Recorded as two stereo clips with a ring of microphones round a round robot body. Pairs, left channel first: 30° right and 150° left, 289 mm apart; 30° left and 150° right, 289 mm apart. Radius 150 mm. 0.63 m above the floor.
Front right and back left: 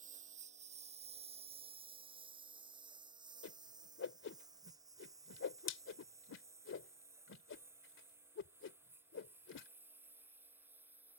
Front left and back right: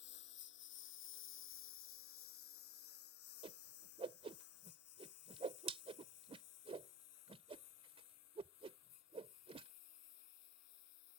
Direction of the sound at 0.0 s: 85° left.